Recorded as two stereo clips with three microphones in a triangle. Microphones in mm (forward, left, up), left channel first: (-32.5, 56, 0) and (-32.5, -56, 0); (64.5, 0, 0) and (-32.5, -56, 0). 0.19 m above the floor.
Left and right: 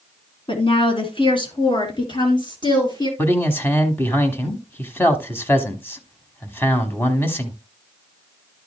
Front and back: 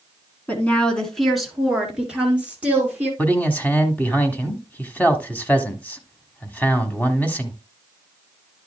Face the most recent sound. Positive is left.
turn(degrees=70)